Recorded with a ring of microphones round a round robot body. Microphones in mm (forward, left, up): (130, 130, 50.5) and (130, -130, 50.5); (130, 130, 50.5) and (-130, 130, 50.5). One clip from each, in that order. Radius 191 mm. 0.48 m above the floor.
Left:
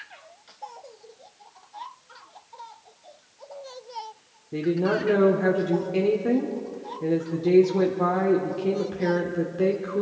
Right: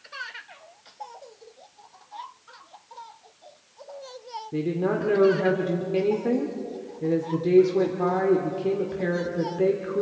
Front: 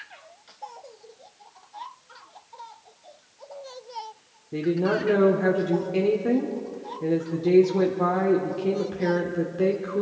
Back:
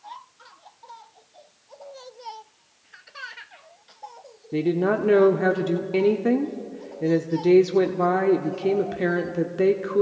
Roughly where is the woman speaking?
Behind.